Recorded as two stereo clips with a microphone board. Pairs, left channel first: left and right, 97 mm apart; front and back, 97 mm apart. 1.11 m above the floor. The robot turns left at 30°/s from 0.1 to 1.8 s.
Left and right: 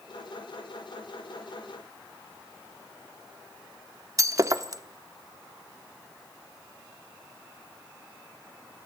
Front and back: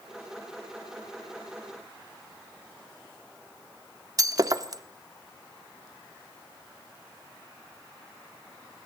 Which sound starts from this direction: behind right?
Breaking glass, at 4.2 s.